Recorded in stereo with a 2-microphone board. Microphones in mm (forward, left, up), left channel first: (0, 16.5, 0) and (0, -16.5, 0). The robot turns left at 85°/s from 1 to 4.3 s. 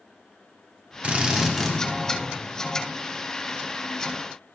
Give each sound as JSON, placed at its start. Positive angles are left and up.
{"t": 1.0, "sound": "a drill", "azimuth_deg": -135, "distance_m": 1.3}